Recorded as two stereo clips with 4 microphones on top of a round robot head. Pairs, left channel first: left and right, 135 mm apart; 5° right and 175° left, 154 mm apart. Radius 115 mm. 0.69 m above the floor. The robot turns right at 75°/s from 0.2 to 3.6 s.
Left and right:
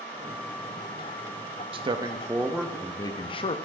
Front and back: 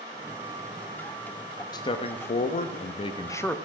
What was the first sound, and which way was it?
A man speaking, 60° right.